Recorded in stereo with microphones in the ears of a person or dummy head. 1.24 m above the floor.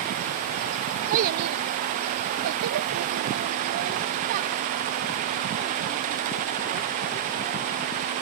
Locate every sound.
1.1 s a child speaking: 50° right (ahead or behind); by 8.2 s 25° right (ahead or behind)